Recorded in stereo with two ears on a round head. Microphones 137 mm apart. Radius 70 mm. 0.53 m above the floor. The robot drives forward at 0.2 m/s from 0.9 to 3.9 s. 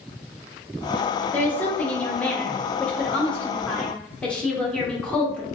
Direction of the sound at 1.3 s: 10° left (ahead or behind).